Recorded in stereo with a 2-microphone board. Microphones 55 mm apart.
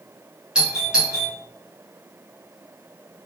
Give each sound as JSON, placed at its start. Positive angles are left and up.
{"t": 0.6, "sound": "a doorbell", "side_deg": -15, "distance_m": 0.8}